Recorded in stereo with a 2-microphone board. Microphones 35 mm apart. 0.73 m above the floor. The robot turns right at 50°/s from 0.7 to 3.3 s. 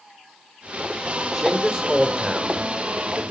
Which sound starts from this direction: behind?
A man speaking, at 1.3 s.